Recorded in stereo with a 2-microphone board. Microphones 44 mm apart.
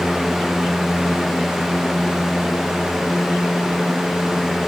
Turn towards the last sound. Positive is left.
No sound to turn to.